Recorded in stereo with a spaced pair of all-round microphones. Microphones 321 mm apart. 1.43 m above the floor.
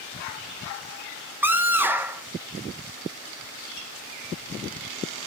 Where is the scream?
5° right (ahead or behind), 1.2 m.